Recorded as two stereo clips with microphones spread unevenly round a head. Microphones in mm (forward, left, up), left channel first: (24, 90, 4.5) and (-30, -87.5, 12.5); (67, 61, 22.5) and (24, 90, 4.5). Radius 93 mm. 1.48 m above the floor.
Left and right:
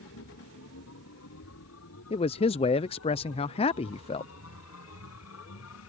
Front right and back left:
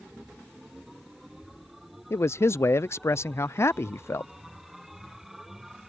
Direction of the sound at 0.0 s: 60° left.